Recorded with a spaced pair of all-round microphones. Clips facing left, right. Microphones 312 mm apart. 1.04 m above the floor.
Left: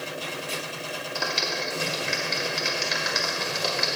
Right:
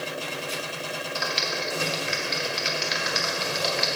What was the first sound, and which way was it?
A clap, 50° left (ahead or behind).